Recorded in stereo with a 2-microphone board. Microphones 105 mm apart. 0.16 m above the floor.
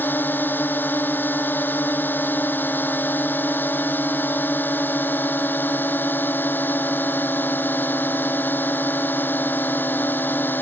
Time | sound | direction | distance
0.0 | a drone | 20° left (ahead or behind) | ?